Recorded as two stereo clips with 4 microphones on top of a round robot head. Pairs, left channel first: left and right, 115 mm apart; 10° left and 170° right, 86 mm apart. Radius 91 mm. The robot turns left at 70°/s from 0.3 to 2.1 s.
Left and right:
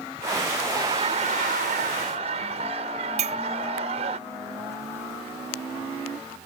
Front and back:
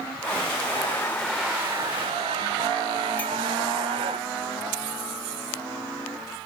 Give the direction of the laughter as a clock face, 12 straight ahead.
1 o'clock.